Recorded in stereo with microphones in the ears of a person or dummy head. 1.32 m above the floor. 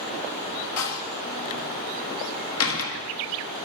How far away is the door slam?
About 1.6 m.